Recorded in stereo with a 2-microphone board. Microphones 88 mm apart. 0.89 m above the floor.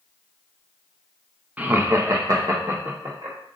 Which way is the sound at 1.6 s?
20° right (ahead or behind).